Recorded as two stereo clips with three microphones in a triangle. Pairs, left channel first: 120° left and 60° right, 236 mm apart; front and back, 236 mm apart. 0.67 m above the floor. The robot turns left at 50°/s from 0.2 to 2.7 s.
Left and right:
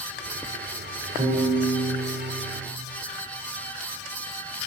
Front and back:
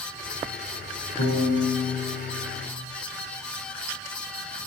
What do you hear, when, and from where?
1.2 s a piano: 10° left, 2.5 m; by 2.6 s 65° right, 2.5 m